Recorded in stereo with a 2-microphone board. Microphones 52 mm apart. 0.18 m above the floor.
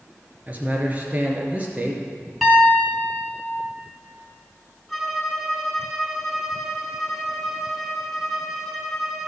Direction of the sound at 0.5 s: 30° right (ahead or behind).